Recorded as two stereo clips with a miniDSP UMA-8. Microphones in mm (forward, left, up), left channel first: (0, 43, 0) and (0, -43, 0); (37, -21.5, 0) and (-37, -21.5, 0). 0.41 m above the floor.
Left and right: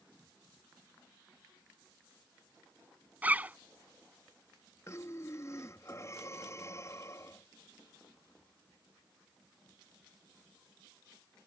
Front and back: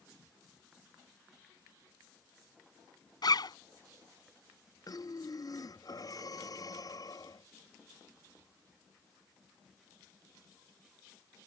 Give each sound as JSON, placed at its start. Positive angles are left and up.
{"t": 3.2, "sound": "a zipper", "azimuth_deg": -20}
{"t": 4.9, "sound": "breathing", "azimuth_deg": 35}